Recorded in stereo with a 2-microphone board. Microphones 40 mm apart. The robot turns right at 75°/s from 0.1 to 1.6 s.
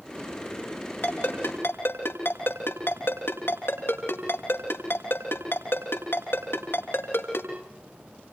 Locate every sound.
1.0 s a ringtone: 65° left (ahead or behind), 6 m; by 7.5 s 75° left (ahead or behind), 6 m